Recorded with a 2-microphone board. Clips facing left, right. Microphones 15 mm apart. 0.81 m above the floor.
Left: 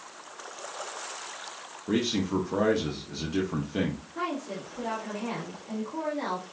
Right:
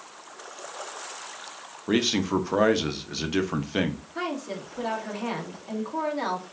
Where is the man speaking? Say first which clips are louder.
Right 3 dB; 40° right (ahead or behind), 0.6 m.